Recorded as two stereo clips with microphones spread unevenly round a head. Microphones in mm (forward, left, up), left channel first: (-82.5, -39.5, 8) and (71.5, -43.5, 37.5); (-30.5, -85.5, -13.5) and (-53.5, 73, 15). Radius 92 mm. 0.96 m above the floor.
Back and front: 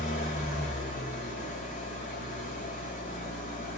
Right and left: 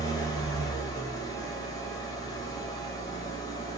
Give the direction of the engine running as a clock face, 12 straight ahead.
5 o'clock.